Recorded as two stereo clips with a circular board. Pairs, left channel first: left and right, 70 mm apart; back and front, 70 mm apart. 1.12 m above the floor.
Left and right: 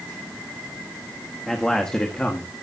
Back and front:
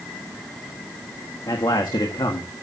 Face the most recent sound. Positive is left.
turn(degrees=160)